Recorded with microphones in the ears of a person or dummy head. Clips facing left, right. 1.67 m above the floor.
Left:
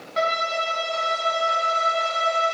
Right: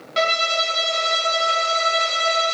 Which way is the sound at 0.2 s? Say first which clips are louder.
Right 2 dB; 45° right (ahead or behind).